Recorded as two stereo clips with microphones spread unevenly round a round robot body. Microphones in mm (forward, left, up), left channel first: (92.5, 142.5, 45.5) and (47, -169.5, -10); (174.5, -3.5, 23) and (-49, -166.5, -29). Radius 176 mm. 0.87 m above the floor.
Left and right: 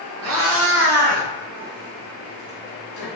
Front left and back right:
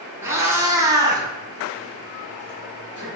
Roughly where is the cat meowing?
Ahead right.